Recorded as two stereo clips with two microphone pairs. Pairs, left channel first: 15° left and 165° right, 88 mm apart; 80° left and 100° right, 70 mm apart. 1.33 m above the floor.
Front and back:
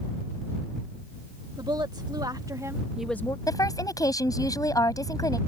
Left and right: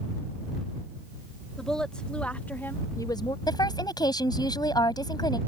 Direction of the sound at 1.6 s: 160° left.